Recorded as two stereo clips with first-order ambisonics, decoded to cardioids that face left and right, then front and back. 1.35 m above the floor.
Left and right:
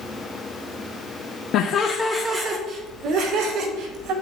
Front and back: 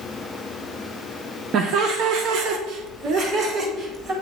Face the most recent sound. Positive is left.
turn(degrees=-125)